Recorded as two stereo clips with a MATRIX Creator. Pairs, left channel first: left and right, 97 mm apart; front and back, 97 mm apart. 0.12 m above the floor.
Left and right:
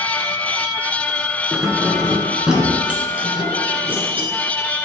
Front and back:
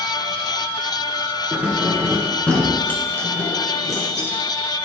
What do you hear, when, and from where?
1.5 s keys jangling: 175° left, 1.1 m; by 4.3 s 25° right, 1.6 m